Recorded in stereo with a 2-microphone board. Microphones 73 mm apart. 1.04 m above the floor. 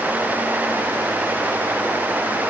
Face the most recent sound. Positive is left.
No sound to turn to.